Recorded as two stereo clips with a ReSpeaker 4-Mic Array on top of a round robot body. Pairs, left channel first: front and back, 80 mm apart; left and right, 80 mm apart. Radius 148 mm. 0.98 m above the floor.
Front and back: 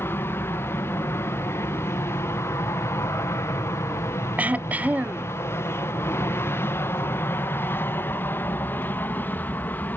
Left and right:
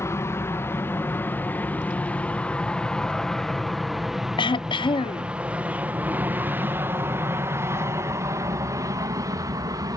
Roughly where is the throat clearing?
Left.